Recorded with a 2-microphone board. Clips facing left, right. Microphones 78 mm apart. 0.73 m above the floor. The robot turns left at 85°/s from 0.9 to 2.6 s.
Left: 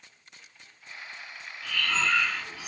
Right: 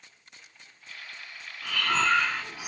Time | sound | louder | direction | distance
1.6 | breathing | right 3 dB | 80° right | 0.7 m